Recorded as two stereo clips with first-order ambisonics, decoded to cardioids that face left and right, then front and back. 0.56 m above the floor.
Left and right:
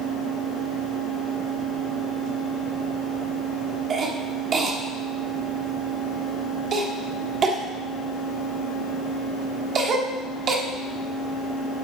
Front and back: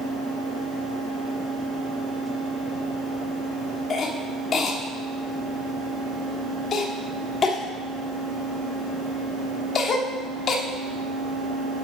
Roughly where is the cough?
Ahead right.